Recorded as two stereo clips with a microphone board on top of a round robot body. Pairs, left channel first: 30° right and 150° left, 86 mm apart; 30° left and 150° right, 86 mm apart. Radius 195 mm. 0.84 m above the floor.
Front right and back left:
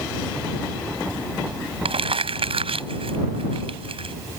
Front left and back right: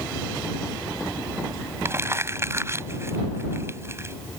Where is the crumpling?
150° left.